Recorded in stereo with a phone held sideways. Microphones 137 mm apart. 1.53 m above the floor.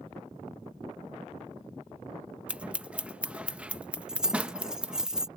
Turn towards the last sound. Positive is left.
turn(degrees=-5)  # may be behind; listen again after turning